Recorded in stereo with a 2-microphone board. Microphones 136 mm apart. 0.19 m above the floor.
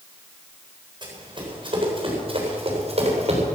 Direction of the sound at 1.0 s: 35° right (ahead or behind).